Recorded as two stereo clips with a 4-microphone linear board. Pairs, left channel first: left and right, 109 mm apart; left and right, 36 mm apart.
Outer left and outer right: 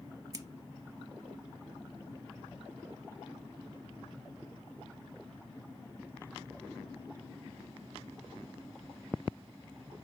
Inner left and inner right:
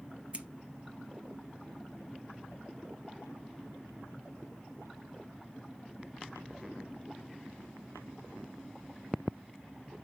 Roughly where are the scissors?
Right.